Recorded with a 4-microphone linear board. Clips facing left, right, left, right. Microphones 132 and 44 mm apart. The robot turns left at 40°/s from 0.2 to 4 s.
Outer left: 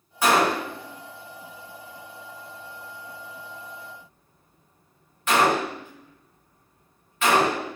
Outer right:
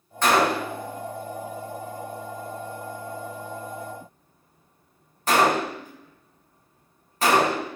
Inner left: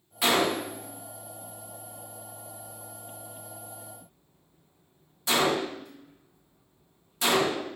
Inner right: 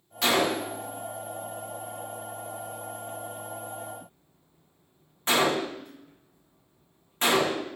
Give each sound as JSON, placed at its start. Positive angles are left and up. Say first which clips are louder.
{"t": 0.2, "sound": "a gunshot", "louder": "even, even", "side_deg": 10, "distance_m": 0.6}